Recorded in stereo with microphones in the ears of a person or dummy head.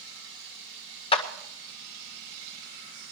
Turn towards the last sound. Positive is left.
turn(degrees=30)  # may be behind; listen again after turning